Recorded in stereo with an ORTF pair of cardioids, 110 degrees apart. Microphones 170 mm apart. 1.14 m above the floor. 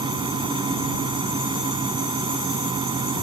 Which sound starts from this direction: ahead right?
A fan, at 0.0 s.